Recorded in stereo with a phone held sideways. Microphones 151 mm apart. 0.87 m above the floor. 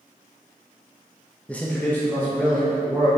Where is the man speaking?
10° left (ahead or behind), 0.7 m; by 3.1 s 15° left (ahead or behind), 2.5 m.